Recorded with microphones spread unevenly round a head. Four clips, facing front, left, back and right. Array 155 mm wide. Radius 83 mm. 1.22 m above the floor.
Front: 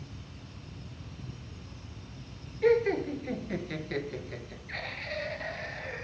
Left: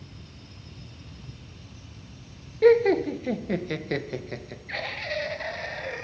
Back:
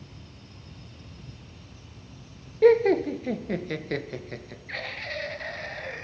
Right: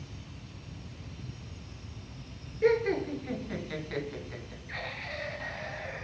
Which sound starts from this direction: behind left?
Laughter, at 2.6 s.